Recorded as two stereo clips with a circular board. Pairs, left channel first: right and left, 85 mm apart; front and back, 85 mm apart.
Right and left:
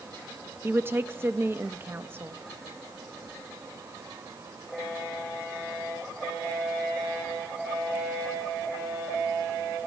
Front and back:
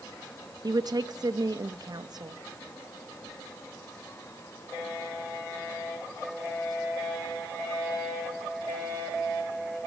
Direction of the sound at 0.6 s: 150° left.